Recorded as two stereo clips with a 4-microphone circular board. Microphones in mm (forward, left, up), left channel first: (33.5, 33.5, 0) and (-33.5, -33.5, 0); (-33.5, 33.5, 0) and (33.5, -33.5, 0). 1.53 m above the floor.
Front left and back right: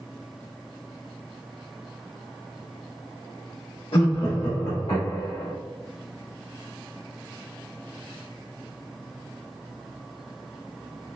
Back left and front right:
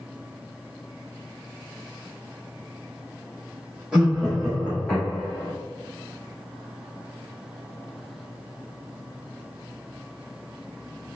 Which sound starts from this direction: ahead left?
Laughter, at 3.9 s.